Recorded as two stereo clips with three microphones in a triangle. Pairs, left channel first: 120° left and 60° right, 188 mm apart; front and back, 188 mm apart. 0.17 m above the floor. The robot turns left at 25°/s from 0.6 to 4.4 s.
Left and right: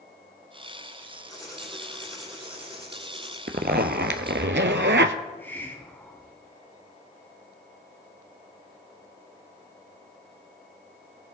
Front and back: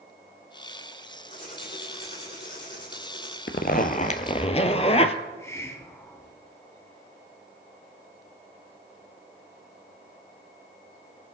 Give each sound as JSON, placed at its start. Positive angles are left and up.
{"t": 1.3, "sound": "writing", "azimuth_deg": 50, "distance_m": 5.0}
{"t": 3.5, "sound": "a zipper", "azimuth_deg": -30, "distance_m": 0.6}
{"t": 5.2, "sound": "a hiss", "azimuth_deg": 55, "distance_m": 1.4}